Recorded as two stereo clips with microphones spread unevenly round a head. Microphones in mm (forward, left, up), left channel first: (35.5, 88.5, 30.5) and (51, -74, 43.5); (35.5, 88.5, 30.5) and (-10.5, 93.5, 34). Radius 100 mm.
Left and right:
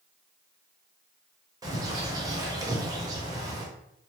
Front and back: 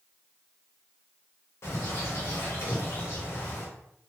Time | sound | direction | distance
1.6 | a bird | 15° right | 1.0 m